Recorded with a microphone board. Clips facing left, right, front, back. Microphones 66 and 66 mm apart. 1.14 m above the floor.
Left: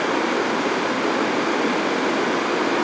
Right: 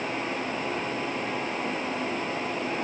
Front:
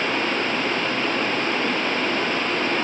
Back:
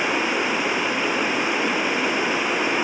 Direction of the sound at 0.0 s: 100° left.